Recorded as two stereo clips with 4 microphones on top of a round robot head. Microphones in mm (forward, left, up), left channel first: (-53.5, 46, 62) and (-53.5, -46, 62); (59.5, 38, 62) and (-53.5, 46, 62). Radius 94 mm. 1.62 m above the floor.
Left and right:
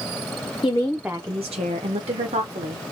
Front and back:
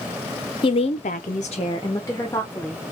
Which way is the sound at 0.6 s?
30° left.